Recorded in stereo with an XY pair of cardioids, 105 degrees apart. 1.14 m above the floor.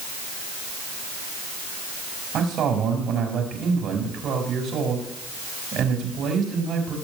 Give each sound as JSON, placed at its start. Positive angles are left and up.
{"t": 2.3, "sound": "a man speaking", "azimuth_deg": -65, "distance_m": 4.5}